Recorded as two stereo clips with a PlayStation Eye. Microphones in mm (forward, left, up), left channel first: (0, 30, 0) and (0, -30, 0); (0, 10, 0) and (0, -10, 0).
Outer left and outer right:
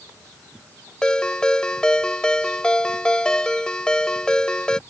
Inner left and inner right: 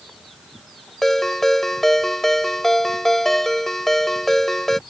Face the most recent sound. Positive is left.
turn(degrees=15)  # may be behind; listen again after turning